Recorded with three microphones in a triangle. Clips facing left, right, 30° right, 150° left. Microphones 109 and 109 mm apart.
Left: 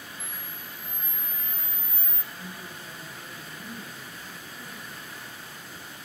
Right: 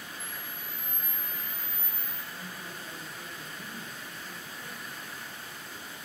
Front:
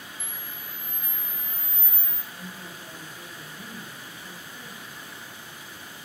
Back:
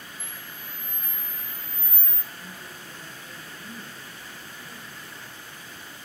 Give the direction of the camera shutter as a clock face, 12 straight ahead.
9 o'clock.